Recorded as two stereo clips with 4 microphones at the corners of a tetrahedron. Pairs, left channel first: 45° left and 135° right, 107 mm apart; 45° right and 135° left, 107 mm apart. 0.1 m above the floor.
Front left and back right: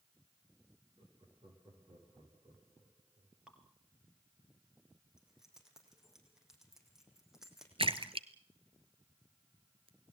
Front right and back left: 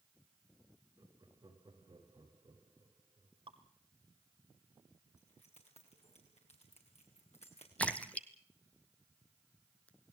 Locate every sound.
1.0 s laughter: 175° right, 7 m
3.5 s dripping: 145° left, 2 m
5.2 s keys jangling: 50° right, 4.5 m
7.8 s a splash: 120° right, 1.2 m